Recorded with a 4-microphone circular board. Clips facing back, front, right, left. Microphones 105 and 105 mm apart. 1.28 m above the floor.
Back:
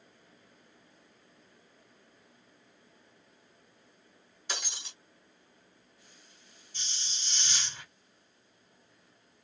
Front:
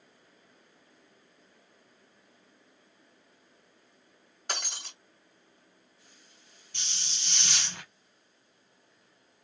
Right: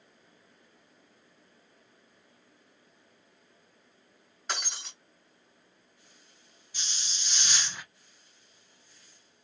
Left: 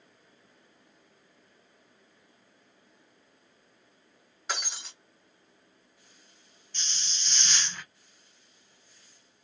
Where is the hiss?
10° right, 0.6 m.